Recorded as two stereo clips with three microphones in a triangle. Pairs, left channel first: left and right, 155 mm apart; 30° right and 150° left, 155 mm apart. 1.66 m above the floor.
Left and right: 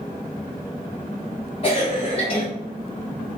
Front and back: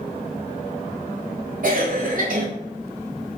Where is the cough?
135° left, 0.5 m.